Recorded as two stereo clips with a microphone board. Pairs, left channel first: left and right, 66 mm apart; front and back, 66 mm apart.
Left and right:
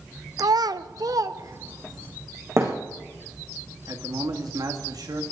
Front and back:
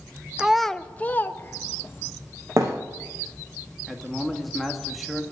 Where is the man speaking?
90° right, 2.5 m.